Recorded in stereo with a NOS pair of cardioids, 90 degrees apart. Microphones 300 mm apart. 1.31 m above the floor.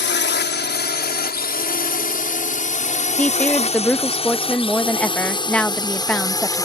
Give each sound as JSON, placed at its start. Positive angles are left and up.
{"t": 0.0, "sound": "a drone", "azimuth_deg": 40}
{"t": 3.2, "sound": "a woman speaking", "azimuth_deg": 5}